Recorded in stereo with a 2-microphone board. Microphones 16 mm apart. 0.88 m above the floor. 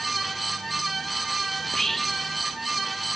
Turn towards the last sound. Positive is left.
turn(degrees=15)  # may be behind; listen again after turning